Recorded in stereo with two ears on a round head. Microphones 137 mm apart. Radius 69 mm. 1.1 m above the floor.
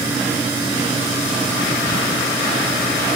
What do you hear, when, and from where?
Only background noise.